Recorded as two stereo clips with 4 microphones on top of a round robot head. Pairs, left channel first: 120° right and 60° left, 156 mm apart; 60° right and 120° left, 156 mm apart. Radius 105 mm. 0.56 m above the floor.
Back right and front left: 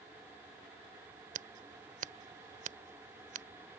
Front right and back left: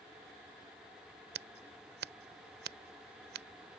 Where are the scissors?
100° left.